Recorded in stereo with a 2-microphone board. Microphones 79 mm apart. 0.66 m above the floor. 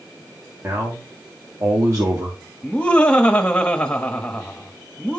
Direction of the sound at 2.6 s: 15° left (ahead or behind).